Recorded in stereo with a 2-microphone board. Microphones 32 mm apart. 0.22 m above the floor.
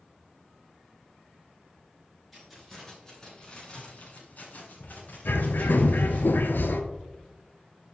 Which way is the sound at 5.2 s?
85° left.